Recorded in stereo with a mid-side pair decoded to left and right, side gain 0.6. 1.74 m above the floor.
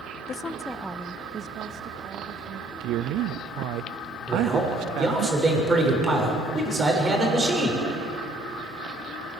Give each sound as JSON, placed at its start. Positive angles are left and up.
{"t": 0.3, "sound": "a woman speaking", "azimuth_deg": 40, "distance_m": 0.7}
{"t": 2.8, "sound": "a man speaking", "azimuth_deg": -65, "distance_m": 0.6}
{"t": 4.3, "sound": "a man speaking", "azimuth_deg": -20, "distance_m": 6.5}